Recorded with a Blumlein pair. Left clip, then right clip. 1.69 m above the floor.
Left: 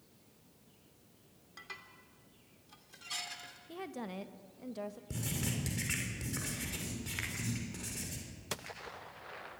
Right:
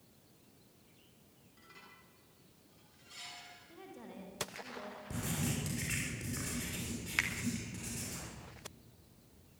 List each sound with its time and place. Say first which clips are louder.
1.6 s dishes clattering: left 8 dB; 35° left, 3.5 m
3.7 s a woman speaking: left 12 dB; 60° left, 1.8 m
5.1 s writing: right 3 dB; 10° left, 6.5 m
7.2 s a finger snap: right 7 dB; 30° right, 2.5 m